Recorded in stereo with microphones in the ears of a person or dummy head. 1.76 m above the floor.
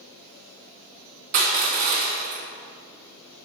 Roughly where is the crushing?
Right.